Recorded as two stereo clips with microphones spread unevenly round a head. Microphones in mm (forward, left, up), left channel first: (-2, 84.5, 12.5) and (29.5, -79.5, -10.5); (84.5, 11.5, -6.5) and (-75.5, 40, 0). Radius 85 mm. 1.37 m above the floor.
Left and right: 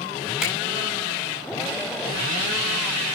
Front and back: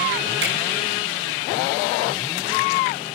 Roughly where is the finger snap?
Behind.